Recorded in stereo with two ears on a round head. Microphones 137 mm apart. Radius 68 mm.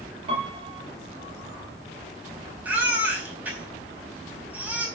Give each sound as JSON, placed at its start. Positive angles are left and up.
{"t": 0.3, "sound": "a piano", "side_deg": -40, "distance_m": 5.0}
{"t": 2.6, "sound": "a baby crying", "side_deg": -10, "distance_m": 4.0}